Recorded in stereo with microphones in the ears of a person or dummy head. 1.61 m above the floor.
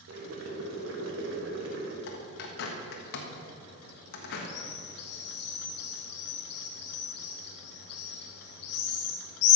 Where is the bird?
65° left (ahead or behind), 1.4 m.